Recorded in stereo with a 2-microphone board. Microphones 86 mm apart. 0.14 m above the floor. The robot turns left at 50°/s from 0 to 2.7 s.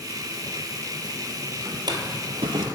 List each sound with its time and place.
1.6 s a drawer: 45° right (ahead or behind), 0.8 m; by 2.6 s 75° right (ahead or behind), 0.8 m